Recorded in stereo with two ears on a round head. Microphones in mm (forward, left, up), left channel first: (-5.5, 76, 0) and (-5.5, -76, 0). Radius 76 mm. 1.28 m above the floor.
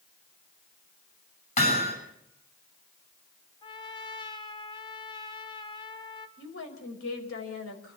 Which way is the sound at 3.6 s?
30° left (ahead or behind).